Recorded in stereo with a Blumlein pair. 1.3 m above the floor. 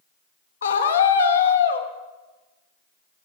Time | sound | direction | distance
0.6 | a scream | 65° left | 1.0 m